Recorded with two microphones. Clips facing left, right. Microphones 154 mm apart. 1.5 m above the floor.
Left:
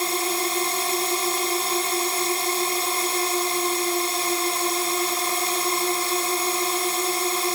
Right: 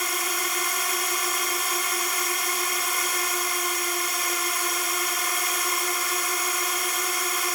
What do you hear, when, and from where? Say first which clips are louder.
0.0 s a drone: left 6 dB; 30° left (ahead or behind)